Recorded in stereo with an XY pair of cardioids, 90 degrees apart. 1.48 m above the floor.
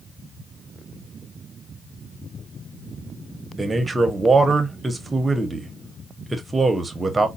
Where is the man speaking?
25° right, 0.9 m.